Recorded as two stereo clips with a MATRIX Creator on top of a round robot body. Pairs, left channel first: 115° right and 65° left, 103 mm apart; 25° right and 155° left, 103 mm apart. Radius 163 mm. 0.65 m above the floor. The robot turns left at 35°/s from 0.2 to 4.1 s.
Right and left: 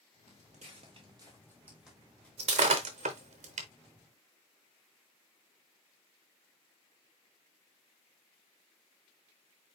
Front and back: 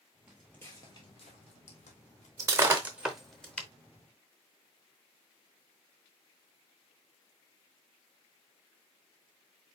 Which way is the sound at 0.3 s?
85° left.